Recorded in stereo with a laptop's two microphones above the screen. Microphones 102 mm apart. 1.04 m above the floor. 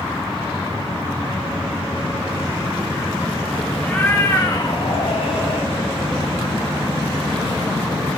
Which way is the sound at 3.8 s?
15° left (ahead or behind).